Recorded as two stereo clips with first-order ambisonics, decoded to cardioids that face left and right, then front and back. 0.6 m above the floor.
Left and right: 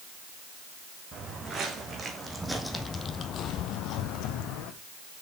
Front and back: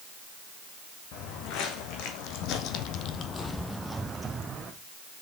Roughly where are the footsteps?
Ahead right.